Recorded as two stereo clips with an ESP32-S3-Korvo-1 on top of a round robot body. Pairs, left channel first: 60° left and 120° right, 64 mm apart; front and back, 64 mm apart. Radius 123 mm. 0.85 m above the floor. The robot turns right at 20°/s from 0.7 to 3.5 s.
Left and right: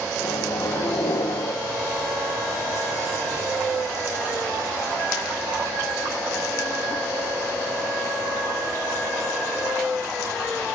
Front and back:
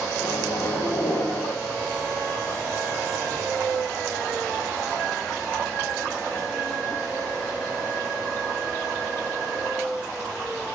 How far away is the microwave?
About 1.2 m.